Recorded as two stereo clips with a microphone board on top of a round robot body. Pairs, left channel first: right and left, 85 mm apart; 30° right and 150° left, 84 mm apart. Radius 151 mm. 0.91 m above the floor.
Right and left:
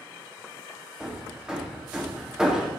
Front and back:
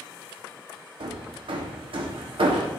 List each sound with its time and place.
1.0 s hammering: 170° left, 1.2 m